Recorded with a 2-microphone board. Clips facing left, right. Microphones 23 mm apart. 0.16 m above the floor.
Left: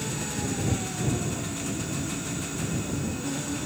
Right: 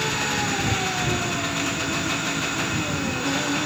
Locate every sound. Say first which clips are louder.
0.0 s an engine running: right 8 dB; 40° right (ahead or behind)